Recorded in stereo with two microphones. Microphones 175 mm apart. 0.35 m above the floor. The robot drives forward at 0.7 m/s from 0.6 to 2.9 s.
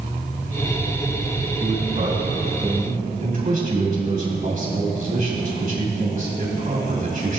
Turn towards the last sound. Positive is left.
turn(degrees=-50)  # may be behind; listen again after turning